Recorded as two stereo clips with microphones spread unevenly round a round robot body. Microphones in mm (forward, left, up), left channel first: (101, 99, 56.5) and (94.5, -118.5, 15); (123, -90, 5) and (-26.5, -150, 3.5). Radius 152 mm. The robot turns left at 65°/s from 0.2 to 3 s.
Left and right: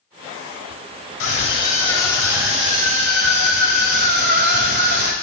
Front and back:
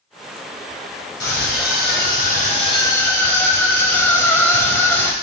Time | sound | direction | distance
1.2 | a scream | 60° left | 3 m